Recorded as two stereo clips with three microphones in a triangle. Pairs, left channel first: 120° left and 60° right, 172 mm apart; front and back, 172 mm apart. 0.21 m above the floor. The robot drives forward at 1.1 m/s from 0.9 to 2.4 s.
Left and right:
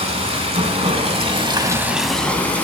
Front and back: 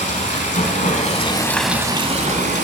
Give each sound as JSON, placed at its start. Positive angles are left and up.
{"t": 0.0, "sound": "running water", "azimuth_deg": -20, "distance_m": 1.1}